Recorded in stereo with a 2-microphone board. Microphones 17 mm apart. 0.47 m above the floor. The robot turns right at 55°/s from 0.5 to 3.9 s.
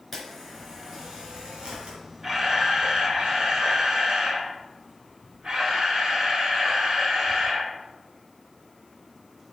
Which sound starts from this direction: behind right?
A camera shutter, at 2.2 s.